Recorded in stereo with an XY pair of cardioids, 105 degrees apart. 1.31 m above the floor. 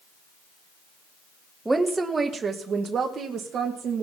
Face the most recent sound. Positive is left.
turn(degrees=-65)